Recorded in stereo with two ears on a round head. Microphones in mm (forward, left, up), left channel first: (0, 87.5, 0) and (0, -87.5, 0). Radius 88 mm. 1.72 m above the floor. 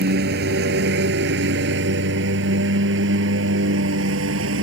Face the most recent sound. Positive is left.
turn(degrees=-75)  # may be behind; listen again after turning